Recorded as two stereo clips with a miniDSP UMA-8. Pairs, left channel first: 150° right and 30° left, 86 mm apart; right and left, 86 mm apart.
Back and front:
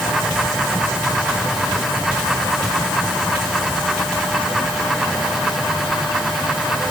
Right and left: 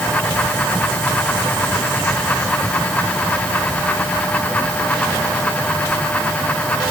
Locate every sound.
Only background noise.